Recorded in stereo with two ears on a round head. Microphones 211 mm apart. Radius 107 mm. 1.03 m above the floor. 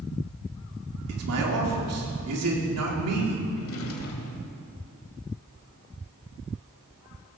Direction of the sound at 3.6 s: 65° left (ahead or behind).